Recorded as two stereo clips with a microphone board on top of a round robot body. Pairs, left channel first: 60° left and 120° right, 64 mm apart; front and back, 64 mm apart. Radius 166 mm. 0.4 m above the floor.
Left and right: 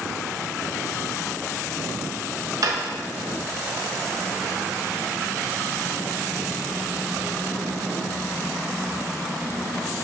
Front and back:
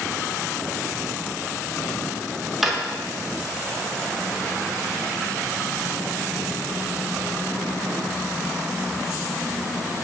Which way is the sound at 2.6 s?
95° right.